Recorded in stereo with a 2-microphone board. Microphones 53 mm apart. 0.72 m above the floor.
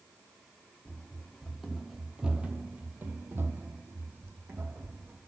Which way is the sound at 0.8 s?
15° left (ahead or behind).